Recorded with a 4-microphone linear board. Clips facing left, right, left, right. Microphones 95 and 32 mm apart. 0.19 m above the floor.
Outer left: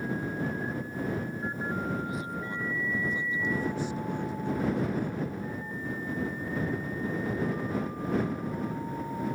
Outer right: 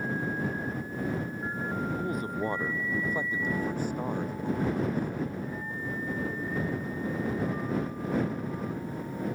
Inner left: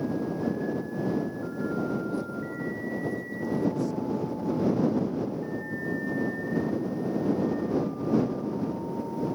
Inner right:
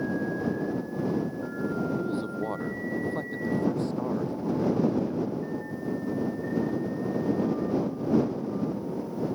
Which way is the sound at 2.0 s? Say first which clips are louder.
Outer right 3 dB, inner right 1 dB; 50° right (ahead or behind).